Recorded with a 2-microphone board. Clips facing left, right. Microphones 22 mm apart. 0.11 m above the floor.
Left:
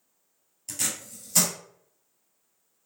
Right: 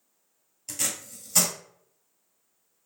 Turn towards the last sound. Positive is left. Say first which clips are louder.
# even
turn(degrees=-5)  # may be behind; listen again after turning